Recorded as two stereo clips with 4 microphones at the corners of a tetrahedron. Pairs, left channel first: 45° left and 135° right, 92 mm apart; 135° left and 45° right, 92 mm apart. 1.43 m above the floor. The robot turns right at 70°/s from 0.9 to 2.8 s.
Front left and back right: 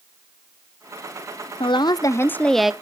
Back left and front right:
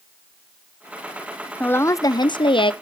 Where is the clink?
No clink in this recording.